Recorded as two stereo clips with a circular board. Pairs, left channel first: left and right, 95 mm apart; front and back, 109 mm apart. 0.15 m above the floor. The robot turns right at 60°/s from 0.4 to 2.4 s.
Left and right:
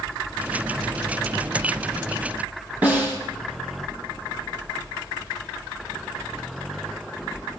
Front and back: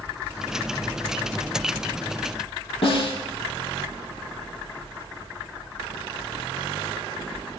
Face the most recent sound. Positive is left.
turn(degrees=-20)